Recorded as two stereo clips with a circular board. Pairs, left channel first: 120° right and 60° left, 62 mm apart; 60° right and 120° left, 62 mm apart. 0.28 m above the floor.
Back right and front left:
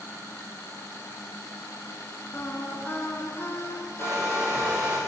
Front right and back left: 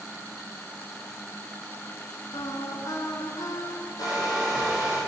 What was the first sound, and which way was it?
Singing, 65° right.